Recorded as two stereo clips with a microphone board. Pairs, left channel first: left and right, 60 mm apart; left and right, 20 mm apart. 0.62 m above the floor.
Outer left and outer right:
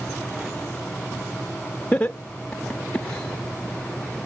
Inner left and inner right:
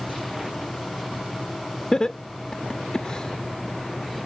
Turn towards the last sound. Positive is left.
turn(degrees=20)  # may be behind; listen again after turning